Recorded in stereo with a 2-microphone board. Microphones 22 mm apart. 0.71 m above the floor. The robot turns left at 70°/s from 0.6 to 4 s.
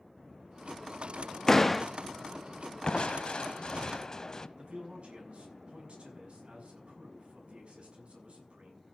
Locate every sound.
1.5 s a door slam: 25° left (ahead or behind), 0.7 m; by 1.9 s 5° left (ahead or behind), 0.7 m
2.8 s crushing: 125° left, 0.7 m; by 4.5 s 45° left, 0.7 m
4.6 s a man speaking: 50° right (ahead or behind), 6.5 m